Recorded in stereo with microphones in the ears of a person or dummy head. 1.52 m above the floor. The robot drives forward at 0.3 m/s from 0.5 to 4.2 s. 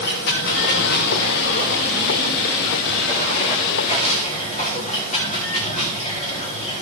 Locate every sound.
0.0 s running water: 55° left (ahead or behind), 1.8 m; by 6.8 s 35° left (ahead or behind), 2.5 m